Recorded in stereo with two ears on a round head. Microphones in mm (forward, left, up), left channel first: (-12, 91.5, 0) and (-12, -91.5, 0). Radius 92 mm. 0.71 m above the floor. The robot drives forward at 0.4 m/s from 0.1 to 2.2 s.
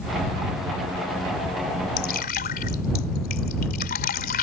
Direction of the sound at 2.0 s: 50° left (ahead or behind).